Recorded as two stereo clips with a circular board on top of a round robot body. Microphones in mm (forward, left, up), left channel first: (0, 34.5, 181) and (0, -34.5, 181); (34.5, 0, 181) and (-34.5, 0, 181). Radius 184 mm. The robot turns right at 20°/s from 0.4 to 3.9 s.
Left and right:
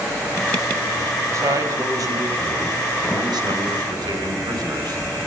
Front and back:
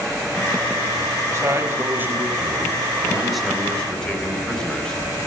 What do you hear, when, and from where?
1.3 s a man speaking: 135° right, 5.5 m; by 5.3 s 80° right, 5.5 m